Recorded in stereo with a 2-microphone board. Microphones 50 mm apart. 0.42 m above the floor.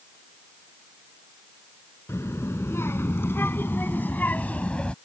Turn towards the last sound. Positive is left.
turn(degrees=20)  # may be behind; listen again after turning